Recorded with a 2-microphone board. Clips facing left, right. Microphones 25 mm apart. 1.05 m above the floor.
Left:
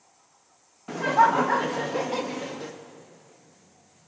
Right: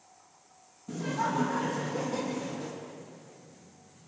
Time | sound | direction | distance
0.9 | laughter | 70° left (ahead or behind) | 1.0 m